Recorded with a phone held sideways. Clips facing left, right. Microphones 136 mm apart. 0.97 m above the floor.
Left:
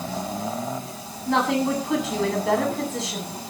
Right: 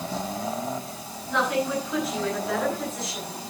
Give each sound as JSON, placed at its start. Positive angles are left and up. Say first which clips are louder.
{"t": 1.3, "sound": "a woman speaking", "louder": "left 4 dB", "side_deg": 75, "distance_m": 9.5}